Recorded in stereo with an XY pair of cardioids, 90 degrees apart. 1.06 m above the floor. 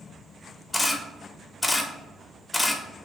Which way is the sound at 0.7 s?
15° left.